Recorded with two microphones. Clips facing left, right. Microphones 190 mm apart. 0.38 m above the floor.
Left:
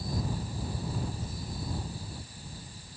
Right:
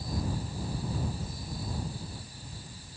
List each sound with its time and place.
Only background noise.